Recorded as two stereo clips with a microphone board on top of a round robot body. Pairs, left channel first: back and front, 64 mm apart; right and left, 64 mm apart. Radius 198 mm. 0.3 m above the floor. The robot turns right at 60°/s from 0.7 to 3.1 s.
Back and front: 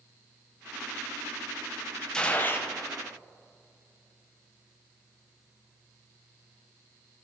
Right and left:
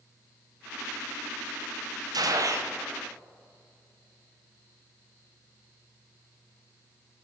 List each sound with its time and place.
2.1 s a gunshot: 100° left, 1.3 m; by 2.7 s 135° left, 1.3 m